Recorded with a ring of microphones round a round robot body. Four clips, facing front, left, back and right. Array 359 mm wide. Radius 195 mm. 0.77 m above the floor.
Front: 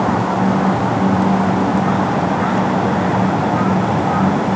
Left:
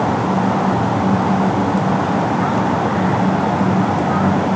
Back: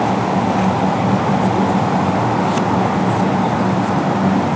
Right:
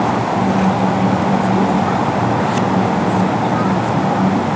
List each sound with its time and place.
Only background noise.